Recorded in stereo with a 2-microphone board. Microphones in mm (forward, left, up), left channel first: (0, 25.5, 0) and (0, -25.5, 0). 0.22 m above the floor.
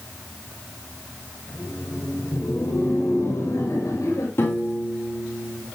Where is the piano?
50° left (ahead or behind), 7 m.